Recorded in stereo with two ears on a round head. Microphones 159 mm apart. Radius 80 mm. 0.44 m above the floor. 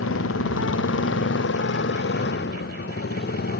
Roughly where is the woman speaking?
I don't hear a woman speaking.